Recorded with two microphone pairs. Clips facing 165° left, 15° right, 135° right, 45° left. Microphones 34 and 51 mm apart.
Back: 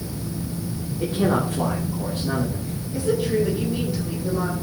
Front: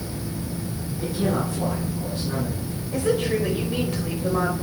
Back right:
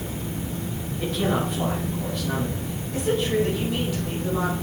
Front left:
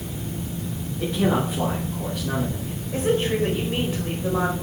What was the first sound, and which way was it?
A man speaking, 125° left.